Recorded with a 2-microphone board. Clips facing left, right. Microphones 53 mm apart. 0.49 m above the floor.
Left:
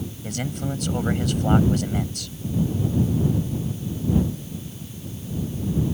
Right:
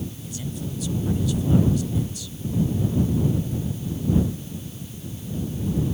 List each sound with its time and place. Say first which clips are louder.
0.2 s a man speaking: left 4 dB; 65° left (ahead or behind)